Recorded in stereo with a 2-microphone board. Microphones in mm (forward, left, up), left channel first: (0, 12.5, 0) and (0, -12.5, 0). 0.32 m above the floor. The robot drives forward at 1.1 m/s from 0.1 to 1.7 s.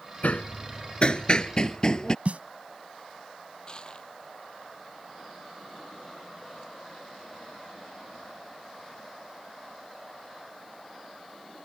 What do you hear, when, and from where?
0.2 s hammering: 70° left (ahead or behind); by 2.1 s 30° left (ahead or behind)
2.2 s a snare drum: 65° right (ahead or behind)
3.7 s crushing: 35° left (ahead or behind)